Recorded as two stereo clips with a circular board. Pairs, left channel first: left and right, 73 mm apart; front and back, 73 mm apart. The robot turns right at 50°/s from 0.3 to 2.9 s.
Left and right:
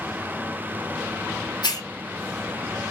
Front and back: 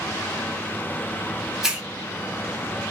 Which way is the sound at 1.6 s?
95° left.